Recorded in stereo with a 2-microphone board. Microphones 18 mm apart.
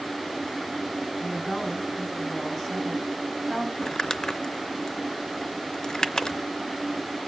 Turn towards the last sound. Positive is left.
turn(degrees=40)  # may be behind; listen again after turning